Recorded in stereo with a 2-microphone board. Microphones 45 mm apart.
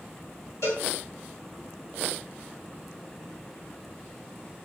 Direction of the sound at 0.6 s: 85° left.